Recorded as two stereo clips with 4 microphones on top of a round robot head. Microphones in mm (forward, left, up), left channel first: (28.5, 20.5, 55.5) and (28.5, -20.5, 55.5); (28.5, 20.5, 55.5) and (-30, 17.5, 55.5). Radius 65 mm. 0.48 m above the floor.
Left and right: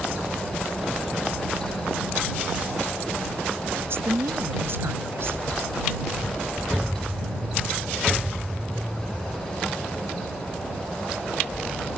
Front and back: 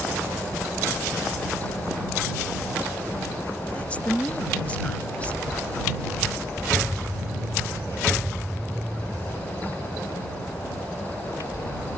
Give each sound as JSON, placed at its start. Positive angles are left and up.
{"t": 3.8, "sound": "a woman speaking", "azimuth_deg": -65}